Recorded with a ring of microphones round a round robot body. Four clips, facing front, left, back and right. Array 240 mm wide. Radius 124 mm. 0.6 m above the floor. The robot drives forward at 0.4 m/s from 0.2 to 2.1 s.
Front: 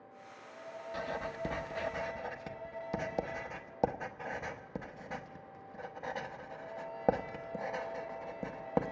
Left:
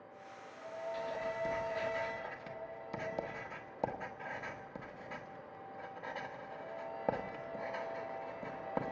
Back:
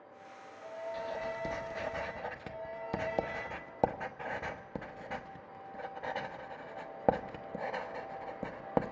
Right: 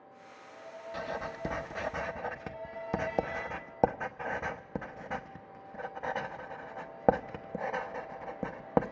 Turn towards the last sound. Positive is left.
turn(degrees=-100)